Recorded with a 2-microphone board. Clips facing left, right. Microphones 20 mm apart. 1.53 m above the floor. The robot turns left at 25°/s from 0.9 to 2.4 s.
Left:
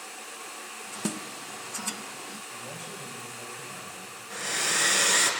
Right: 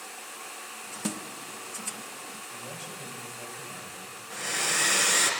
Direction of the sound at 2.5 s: 15° right (ahead or behind).